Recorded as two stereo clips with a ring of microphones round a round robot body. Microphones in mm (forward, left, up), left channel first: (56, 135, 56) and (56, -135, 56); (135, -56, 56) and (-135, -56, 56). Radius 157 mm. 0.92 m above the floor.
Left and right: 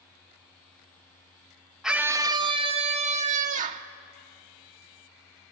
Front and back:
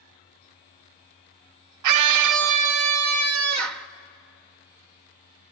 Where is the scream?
Straight behind, 0.5 m; by 3.9 s 155° right, 1.5 m.